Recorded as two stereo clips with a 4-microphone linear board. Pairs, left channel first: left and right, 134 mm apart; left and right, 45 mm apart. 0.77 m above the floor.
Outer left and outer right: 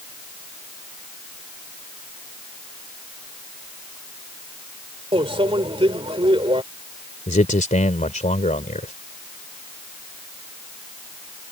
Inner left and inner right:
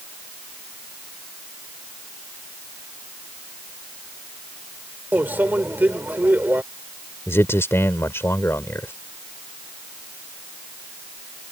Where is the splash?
No splash in this recording.